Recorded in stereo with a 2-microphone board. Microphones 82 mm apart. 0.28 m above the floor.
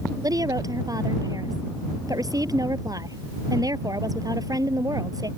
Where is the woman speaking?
50° right (ahead or behind).